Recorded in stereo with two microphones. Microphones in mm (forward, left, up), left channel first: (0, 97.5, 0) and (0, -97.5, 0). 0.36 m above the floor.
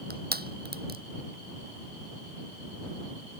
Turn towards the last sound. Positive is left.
turn(degrees=-50)  # may be behind; listen again after turning